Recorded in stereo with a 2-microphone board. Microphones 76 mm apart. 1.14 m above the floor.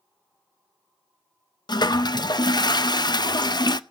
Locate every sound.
1.7 s a toilet flushing: 65° left (ahead or behind), 0.5 m